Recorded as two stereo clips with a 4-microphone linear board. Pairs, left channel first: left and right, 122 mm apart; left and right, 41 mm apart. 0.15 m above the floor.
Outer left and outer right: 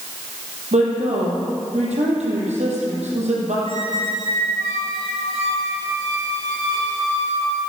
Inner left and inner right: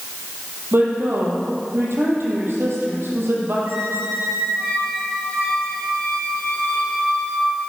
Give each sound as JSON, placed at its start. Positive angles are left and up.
{"t": 0.7, "sound": "a woman speaking", "side_deg": -70, "distance_m": 5.0}
{"t": 3.7, "sound": "a squeak", "side_deg": -55, "distance_m": 5.0}